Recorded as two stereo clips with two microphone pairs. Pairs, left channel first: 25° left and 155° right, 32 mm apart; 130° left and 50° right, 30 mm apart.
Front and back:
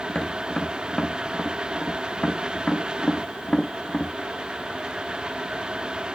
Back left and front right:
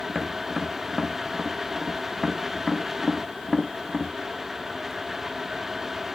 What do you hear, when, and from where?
0.1 s tapping: 40° left, 1.0 m